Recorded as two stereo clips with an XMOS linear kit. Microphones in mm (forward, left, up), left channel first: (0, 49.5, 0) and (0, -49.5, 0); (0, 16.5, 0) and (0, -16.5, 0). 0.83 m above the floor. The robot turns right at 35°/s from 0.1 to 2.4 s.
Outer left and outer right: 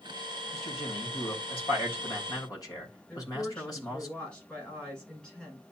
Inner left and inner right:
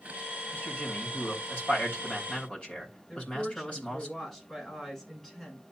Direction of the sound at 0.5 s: 75° left.